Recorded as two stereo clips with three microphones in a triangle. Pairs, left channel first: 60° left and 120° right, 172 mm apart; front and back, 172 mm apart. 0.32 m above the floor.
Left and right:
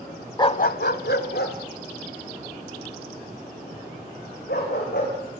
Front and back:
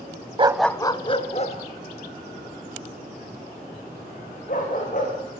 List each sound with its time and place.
0.4 s a dog barking: 125° left, 0.5 m; by 5.1 s 40° left, 7.5 m